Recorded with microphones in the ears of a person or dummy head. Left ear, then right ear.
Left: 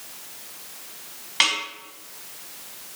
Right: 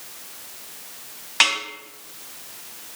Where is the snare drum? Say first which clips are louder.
Right 2 dB; 5° right (ahead or behind), 0.8 m.